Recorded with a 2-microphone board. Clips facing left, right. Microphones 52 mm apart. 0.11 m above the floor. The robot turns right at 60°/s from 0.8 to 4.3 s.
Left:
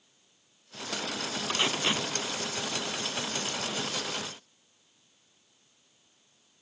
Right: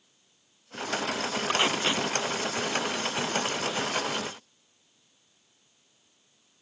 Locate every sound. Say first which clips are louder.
1.5 s tape being pulled: right 2 dB; 25° right (ahead or behind); by 2.1 s 10° left (ahead or behind)